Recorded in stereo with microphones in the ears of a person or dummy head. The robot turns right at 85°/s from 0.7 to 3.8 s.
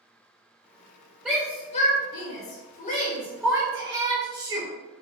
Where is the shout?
5° right (ahead or behind), 0.9 m; by 4.7 s 25° right (ahead or behind), 0.9 m.